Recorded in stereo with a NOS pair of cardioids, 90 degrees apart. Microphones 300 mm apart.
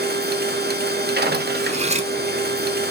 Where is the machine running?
35° right, 1.2 m.